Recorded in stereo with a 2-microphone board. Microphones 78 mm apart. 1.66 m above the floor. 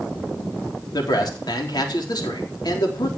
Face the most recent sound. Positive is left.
turn(degrees=60)  # may be behind; listen again after turning